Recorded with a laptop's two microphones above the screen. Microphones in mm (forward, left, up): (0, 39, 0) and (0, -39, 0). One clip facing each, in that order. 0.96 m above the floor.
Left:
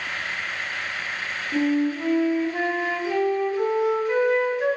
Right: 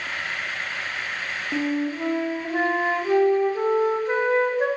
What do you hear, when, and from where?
1.5 s a flute: 35° right (ahead or behind), 0.6 m